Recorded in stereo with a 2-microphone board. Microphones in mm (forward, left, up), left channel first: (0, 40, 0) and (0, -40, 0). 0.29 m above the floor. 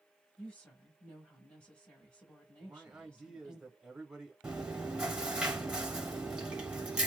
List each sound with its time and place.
0.4 s a woman speaking: 15° left (ahead or behind), 1.3 m
2.6 s a man speaking: 10° right (ahead or behind), 1.0 m
4.4 s chewing: 15° right (ahead or behind), 1.0 m